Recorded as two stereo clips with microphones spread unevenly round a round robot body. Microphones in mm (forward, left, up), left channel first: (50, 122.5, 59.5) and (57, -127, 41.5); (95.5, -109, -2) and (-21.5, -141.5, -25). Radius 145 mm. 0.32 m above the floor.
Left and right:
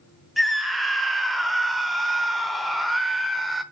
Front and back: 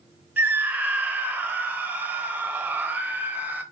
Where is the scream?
170° right, 0.9 m.